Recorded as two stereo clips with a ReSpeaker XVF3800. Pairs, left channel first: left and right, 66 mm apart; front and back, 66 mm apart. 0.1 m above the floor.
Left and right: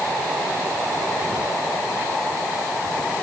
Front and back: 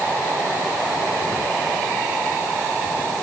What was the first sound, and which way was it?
Only background noise.